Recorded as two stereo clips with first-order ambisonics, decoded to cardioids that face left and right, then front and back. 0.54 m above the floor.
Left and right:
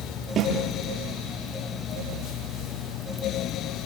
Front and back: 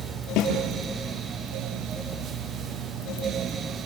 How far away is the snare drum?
About 6.5 m.